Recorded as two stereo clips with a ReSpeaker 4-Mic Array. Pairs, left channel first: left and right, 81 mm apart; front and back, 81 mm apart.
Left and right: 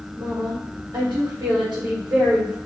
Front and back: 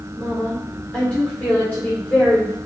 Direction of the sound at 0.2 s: 70° right.